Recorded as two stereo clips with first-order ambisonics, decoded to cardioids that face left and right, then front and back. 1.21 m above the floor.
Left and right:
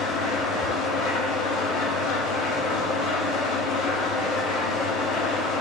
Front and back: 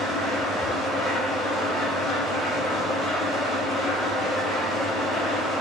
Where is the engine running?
75° left, 0.9 m.